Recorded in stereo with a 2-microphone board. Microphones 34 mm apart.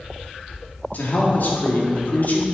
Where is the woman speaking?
55° left (ahead or behind), 1.9 m.